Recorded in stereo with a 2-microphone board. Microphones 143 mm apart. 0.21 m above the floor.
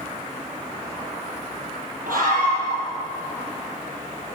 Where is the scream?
80° right, 8 m.